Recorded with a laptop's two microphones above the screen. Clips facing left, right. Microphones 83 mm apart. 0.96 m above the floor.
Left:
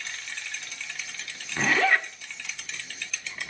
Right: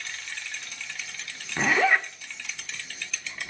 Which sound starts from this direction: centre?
A zipper, at 1.6 s.